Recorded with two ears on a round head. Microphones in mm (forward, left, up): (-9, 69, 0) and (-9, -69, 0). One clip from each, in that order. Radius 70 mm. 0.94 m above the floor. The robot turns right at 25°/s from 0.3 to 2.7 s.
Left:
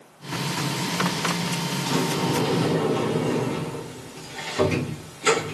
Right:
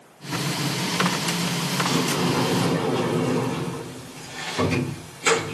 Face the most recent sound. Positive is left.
turn(degrees=-10)  # may be behind; listen again after turning